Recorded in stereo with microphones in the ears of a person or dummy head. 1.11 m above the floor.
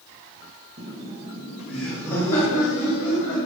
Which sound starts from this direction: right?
Laughter, at 0.8 s.